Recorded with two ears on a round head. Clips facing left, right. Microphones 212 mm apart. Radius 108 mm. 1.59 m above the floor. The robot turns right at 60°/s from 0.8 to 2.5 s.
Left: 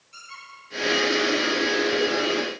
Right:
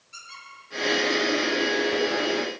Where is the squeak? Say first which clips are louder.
Left 1 dB; 5° right (ahead or behind), 6.5 m; by 1.7 s 55° right (ahead or behind), 6.5 m.